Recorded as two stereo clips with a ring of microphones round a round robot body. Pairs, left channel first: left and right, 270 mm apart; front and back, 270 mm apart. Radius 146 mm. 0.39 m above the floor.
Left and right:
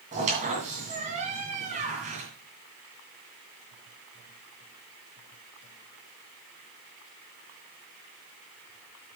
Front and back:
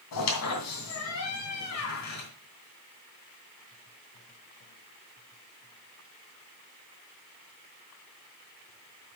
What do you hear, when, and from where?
0.1 s a squeak: 25° right, 2 m